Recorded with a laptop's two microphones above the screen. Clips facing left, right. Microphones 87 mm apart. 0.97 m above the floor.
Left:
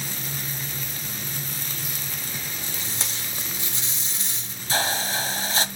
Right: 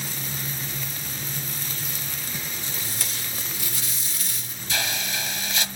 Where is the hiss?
35° left (ahead or behind), 0.9 m.